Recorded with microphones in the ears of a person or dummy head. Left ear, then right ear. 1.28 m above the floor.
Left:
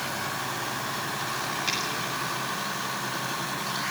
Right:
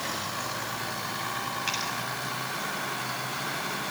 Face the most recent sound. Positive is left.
turn(degrees=-15)  # may be behind; listen again after turning